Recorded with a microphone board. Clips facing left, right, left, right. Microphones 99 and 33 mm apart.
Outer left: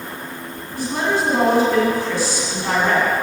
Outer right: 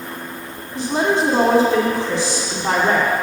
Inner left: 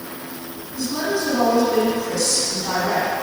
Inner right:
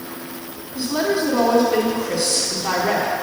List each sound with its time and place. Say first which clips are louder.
0.8 s a woman speaking: outer right 3 dB, inner right 3 dB; 25° right (ahead or behind), 1.3 m